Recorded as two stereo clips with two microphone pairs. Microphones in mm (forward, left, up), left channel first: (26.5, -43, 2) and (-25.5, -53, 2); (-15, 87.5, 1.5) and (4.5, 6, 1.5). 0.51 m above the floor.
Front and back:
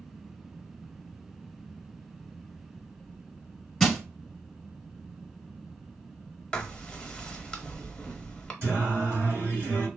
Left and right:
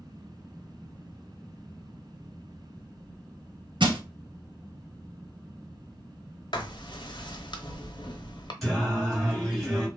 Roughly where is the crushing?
Right.